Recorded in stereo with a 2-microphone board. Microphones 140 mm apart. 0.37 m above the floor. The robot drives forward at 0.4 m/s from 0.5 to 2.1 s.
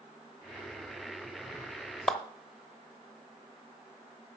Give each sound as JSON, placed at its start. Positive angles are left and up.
{"t": 2.1, "sound": "a clap", "side_deg": 0, "distance_m": 0.9}